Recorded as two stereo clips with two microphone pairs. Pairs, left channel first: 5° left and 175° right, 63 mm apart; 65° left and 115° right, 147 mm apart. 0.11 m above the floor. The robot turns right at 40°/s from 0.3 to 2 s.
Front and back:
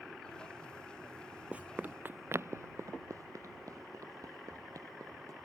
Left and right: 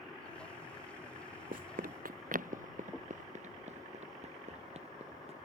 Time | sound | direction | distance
1.5 | running footsteps | 105° right | ?